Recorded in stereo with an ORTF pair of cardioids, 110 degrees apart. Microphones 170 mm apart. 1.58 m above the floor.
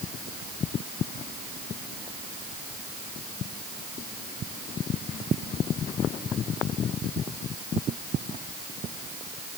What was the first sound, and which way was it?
Only background noise.